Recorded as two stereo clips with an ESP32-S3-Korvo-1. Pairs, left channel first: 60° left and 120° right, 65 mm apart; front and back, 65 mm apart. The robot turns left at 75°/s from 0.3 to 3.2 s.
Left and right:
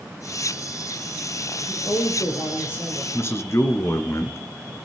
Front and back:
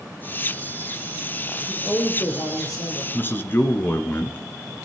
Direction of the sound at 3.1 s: 45° left.